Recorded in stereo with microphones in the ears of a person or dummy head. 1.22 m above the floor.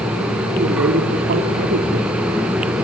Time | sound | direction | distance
0.6 | a man speaking | 45° right (ahead or behind) | 4 m